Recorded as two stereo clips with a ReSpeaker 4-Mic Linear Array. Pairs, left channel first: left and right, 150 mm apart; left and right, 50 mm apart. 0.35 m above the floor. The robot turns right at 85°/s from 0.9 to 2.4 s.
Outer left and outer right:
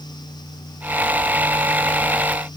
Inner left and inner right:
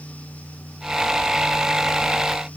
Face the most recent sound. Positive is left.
No sound to turn to.